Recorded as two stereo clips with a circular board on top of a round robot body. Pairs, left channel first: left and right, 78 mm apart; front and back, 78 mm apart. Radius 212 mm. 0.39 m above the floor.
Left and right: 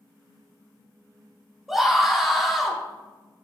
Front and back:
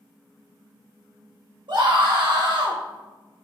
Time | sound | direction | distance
1.7 | a scream | 175° right | 3.5 m